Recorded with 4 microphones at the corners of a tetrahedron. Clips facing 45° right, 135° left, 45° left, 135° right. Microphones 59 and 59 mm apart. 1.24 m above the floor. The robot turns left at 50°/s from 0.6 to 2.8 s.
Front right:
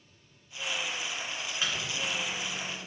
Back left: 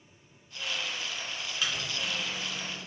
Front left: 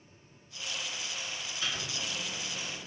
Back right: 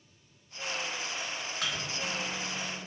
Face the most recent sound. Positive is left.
turn(degrees=-170)